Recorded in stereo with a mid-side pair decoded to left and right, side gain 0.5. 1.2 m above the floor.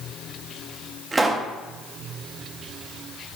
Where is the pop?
25° right, 1.2 m.